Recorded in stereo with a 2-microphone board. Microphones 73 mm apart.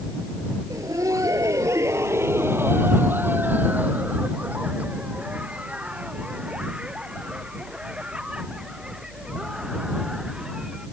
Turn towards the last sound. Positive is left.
turn(degrees=-10)  # may be behind; listen again after turning